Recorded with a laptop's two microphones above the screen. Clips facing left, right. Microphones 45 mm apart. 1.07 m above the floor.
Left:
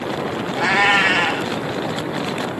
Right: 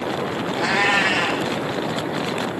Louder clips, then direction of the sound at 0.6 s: Left 4 dB; 40° left (ahead or behind).